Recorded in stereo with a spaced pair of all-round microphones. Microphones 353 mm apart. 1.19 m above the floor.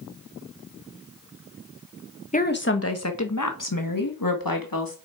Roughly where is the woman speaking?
Left.